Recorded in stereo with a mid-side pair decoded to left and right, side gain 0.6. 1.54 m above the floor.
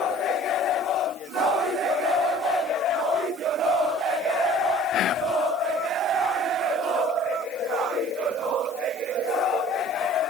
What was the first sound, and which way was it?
Whispering, 50° left.